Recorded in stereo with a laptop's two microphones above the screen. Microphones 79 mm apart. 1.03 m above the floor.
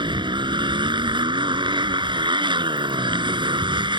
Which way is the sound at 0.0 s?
85° right.